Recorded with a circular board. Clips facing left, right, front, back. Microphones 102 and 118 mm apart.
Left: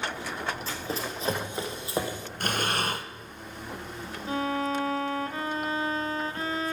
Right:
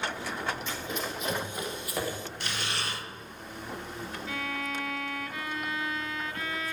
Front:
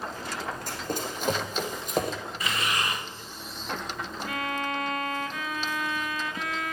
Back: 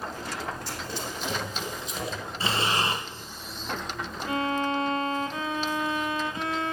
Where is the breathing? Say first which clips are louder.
Left 9 dB, back 4 dB; 125° left, 1.0 m.